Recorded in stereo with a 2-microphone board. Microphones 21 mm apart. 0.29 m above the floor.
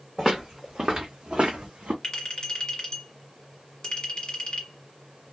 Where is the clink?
40° left (ahead or behind), 1.5 m.